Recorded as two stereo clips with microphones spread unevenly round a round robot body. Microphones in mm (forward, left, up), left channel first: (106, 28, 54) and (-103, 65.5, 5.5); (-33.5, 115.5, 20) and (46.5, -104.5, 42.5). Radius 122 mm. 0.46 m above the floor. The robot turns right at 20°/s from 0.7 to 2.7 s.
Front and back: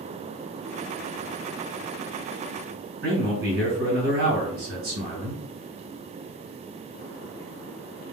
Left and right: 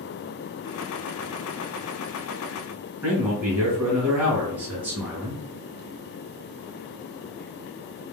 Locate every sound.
3.0 s a man speaking: 155° right, 2.5 m